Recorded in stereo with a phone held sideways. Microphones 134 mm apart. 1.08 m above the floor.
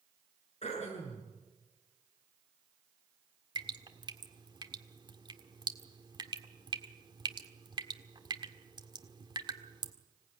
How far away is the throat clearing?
About 7.5 m.